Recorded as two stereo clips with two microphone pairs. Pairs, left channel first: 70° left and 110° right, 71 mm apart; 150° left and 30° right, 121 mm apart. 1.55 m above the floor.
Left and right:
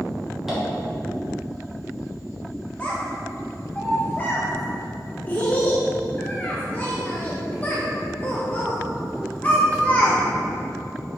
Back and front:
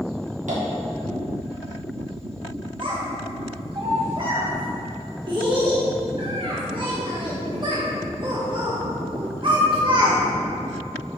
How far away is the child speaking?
About 1.0 m.